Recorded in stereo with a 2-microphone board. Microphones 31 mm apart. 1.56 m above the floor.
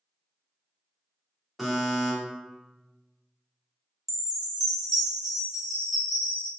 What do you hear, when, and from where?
1.6 s a buzzer: 5° right (ahead or behind), 1.3 m
4.1 s a chime: 5° right (ahead or behind), 0.9 m